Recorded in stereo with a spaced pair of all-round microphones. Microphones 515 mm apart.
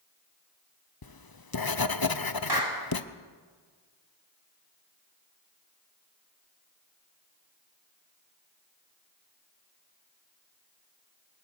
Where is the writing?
45° left (ahead or behind), 0.8 m.